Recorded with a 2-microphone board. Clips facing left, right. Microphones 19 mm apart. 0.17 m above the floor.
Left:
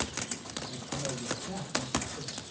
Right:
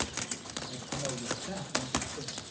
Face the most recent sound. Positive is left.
turn(degrees=-45)  # may be behind; listen again after turning